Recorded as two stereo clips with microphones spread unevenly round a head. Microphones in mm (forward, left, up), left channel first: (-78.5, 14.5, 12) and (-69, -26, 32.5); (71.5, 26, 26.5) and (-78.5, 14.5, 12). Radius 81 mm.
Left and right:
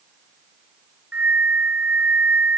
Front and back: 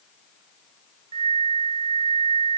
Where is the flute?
120° right.